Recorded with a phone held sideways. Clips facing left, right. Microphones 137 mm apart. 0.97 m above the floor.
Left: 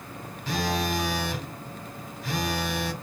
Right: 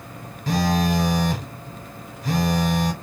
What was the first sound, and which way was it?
A phone buzzing, 45° right (ahead or behind).